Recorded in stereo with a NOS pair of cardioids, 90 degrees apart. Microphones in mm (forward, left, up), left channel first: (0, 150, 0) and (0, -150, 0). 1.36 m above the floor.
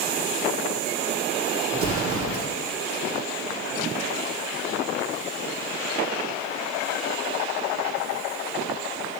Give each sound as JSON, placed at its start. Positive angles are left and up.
{"t": 1.7, "sound": "an explosion", "azimuth_deg": -50, "distance_m": 1.9}